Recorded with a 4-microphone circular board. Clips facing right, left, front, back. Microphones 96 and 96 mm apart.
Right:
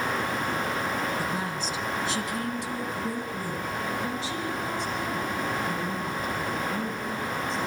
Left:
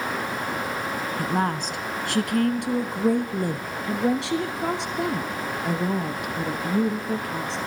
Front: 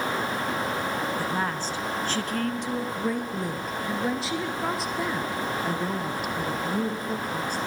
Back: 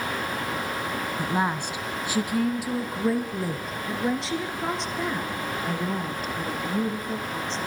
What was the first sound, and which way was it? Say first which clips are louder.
A woman speaking: left 5 dB, back 2 dB; 115° left.